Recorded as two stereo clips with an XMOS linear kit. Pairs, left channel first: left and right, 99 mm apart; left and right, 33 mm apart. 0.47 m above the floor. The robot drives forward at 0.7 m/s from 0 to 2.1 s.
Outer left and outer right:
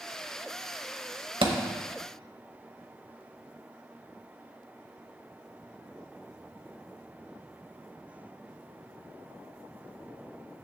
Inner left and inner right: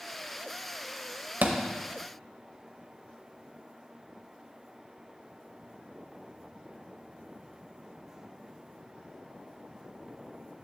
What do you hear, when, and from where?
1.4 s a thud: 65° right (ahead or behind), 0.9 m; by 1.6 s 70° right (ahead or behind), 0.8 m